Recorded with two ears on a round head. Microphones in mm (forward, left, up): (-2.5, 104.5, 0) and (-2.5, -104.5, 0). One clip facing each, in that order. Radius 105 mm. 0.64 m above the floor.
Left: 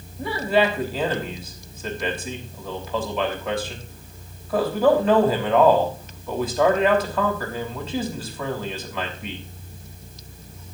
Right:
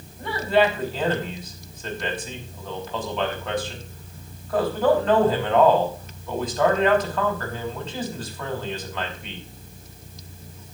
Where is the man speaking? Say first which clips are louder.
Even; 10° left (ahead or behind), 5 m.